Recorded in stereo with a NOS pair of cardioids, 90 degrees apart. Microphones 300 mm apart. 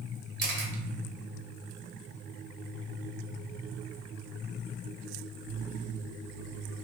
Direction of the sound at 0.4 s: 35° right.